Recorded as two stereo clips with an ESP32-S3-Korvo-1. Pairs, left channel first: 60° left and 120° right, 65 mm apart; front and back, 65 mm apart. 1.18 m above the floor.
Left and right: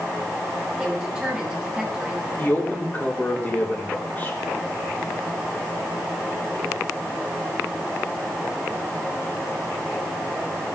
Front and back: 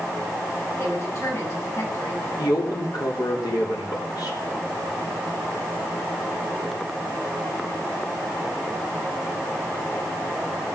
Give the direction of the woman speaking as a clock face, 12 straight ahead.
1 o'clock.